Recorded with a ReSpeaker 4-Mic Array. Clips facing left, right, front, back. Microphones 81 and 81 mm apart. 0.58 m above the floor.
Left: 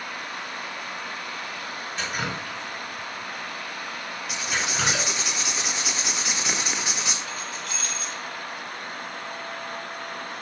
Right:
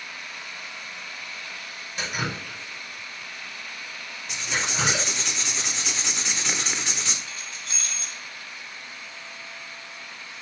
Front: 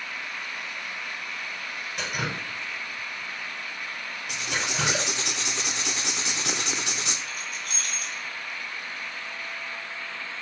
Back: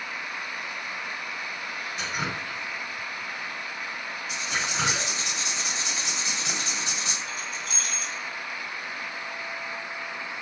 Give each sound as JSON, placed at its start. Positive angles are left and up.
{"t": 2.0, "sound": "dripping", "azimuth_deg": -15, "distance_m": 5.0}
{"t": 4.3, "sound": "writing", "azimuth_deg": 5, "distance_m": 1.1}
{"t": 7.3, "sound": "keys jangling", "azimuth_deg": -25, "distance_m": 2.5}